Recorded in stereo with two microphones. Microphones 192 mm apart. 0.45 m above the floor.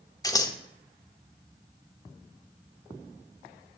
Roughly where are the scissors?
Centre.